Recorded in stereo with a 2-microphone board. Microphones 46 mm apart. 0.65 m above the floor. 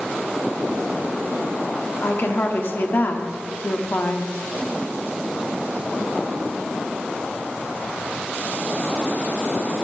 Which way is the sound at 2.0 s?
50° left (ahead or behind).